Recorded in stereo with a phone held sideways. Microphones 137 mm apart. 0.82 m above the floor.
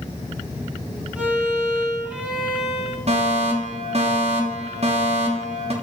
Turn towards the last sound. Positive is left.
turn(degrees=-50)  # may be behind; listen again after turning